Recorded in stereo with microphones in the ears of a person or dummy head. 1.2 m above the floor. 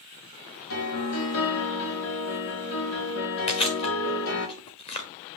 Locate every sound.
0.7 s a piano: 70° left (ahead or behind), 2 m
3.5 s chewing: 30° left (ahead or behind), 1.3 m